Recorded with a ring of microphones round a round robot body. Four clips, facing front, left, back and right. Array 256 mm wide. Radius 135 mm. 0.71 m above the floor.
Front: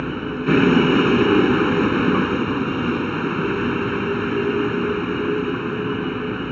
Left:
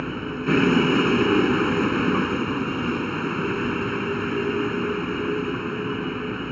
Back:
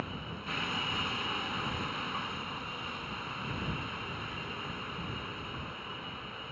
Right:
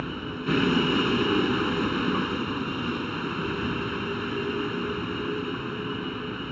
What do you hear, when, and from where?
0.0 s a vehicle: 15° left